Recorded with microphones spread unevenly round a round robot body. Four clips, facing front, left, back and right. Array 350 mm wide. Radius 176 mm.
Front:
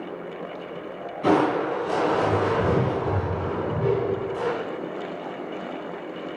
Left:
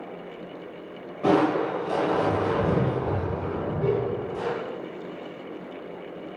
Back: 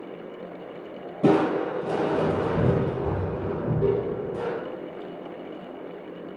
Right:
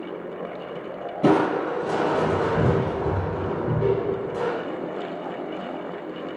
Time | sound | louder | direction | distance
1.2 | crushing | right 1 dB, even | 135° right | 4.5 m